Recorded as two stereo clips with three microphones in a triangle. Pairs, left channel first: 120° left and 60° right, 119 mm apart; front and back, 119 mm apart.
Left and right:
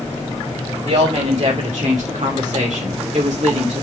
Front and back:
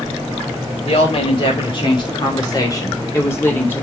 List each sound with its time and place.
0.8 s a woman speaking: 40° right, 3 m; by 3.8 s 75° right, 2 m